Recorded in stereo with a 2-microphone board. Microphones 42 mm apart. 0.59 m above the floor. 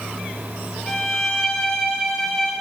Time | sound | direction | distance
0.9 | a violin | 15° left (ahead or behind) | 1.1 m